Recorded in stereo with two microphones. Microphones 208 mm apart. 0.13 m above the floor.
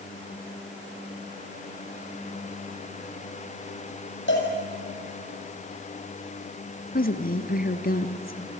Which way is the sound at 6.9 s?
50° left (ahead or behind).